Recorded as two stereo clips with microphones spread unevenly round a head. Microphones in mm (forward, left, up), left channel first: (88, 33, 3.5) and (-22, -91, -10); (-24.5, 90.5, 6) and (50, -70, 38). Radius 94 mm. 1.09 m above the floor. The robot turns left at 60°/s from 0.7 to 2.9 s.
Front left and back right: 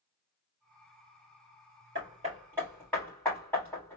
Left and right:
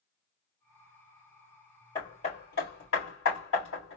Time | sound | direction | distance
1.9 | hammering | 175° right | 3.5 m